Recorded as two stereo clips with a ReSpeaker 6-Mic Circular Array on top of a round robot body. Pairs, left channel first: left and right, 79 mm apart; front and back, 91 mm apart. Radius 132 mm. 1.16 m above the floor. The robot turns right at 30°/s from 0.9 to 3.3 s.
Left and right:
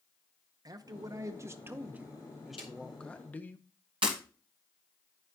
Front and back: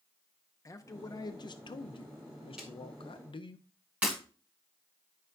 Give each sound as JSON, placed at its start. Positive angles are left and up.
{"t": 0.7, "sound": "a man speaking", "azimuth_deg": -50, "distance_m": 0.7}
{"t": 2.6, "sound": "a snare drum", "azimuth_deg": 100, "distance_m": 0.6}
{"t": 4.0, "sound": "breaking glass", "azimuth_deg": -110, "distance_m": 1.1}